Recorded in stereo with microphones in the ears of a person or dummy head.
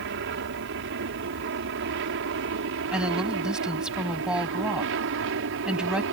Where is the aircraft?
60° right (ahead or behind).